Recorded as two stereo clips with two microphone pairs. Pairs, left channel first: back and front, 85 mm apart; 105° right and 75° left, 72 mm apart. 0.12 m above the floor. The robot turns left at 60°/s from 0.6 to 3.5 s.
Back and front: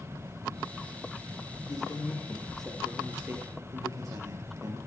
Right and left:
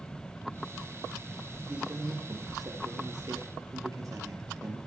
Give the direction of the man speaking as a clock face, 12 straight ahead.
7 o'clock.